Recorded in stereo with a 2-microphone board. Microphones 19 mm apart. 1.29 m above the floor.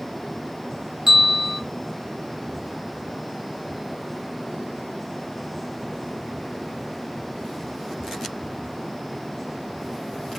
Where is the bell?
20° right (ahead or behind), 0.9 m.